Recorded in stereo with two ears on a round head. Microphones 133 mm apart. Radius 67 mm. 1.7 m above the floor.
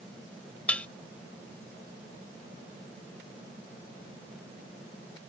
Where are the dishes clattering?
10° left (ahead or behind).